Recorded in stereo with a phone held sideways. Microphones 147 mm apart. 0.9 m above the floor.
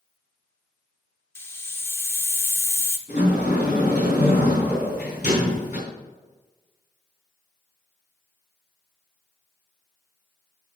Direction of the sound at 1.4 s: 15° left (ahead or behind).